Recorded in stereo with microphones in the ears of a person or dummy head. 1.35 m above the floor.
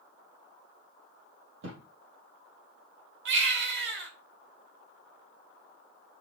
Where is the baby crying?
65° right (ahead or behind), 2 m.